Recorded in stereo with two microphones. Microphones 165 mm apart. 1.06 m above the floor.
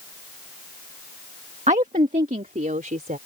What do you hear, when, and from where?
1.7 s a woman speaking: 45° right (ahead or behind); by 3.2 s 55° right (ahead or behind)